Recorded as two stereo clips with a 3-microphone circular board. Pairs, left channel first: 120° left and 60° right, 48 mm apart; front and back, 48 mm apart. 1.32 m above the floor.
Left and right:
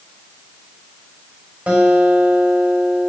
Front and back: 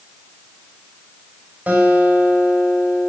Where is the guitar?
125° right, 6 m.